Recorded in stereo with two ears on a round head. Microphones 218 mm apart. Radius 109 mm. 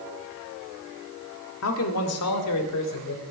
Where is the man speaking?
60° left (ahead or behind), 2 m; by 3.2 s 80° left, 4 m.